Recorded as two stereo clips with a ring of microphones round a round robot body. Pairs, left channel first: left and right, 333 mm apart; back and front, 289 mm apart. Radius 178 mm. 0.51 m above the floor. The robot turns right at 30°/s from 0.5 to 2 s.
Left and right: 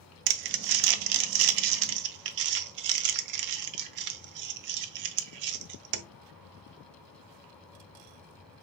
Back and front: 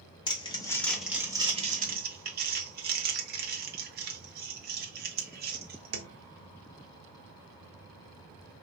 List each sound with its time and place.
0.3 s crumpling: 105° right, 0.5 m; by 6.0 s 60° right, 0.5 m